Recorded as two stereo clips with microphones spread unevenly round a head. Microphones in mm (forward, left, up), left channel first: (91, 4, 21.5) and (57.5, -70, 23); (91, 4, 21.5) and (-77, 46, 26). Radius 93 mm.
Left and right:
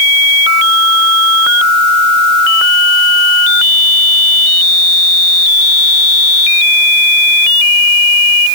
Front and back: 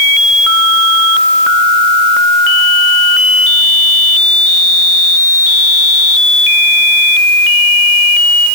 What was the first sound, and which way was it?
Only background noise.